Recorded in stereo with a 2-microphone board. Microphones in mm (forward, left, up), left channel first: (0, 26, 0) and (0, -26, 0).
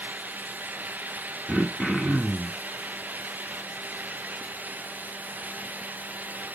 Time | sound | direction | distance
1.5 | throat clearing | centre (ahead or behind) | 0.9 m